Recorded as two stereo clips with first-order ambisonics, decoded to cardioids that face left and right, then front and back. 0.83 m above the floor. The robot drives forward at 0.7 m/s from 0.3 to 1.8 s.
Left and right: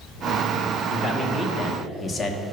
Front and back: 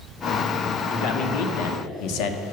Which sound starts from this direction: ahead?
A man speaking, at 0.9 s.